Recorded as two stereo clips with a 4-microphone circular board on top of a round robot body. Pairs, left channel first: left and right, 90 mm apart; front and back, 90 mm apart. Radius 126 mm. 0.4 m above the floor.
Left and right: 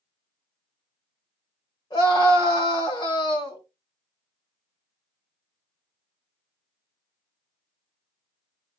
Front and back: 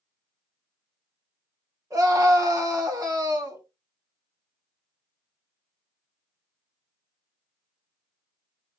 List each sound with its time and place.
1.9 s a scream: 130° left, 4.5 m